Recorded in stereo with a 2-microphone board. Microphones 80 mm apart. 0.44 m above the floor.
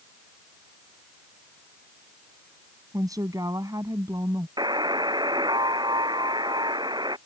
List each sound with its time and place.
2.9 s a woman speaking: 50° right (ahead or behind)
4.6 s a buzzer: 60° right (ahead or behind)